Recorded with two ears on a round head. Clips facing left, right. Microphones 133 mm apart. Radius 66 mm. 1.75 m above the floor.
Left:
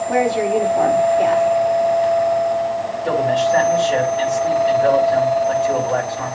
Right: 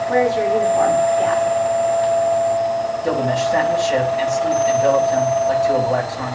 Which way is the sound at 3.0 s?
15° right (ahead or behind).